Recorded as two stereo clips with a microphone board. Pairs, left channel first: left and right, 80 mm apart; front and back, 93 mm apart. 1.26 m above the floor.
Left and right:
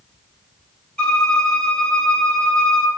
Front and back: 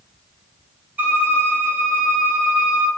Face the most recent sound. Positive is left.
turn(degrees=145)